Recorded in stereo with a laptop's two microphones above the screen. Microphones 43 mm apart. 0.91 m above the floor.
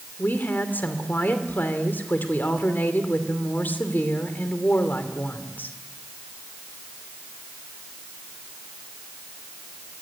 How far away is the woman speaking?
About 2.5 m.